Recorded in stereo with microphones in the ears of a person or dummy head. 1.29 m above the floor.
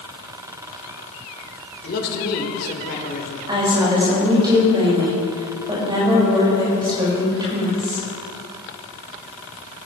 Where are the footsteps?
I don't hear footsteps.